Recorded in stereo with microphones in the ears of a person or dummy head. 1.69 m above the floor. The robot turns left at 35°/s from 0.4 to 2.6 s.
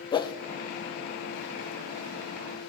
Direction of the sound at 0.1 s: 30° left (ahead or behind).